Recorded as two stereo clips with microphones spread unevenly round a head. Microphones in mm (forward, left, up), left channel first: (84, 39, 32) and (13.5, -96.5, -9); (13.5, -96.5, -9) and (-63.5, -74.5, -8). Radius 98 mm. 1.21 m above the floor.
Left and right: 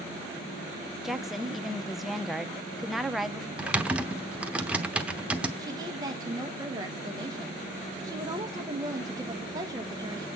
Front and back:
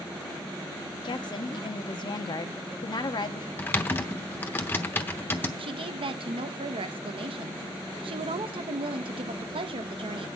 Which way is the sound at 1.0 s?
35° right.